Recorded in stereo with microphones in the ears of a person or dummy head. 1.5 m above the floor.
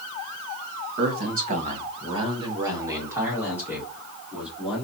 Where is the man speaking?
55° right (ahead or behind), 1.4 m; by 4.8 s 5° left (ahead or behind), 3 m.